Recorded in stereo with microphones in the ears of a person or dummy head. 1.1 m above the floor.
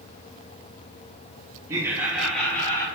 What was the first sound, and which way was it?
Laughter, 20° right (ahead or behind).